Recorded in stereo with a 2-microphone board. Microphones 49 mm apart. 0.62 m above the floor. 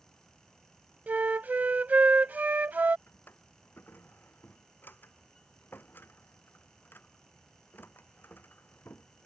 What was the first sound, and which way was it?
A flute, 35° right (ahead or behind).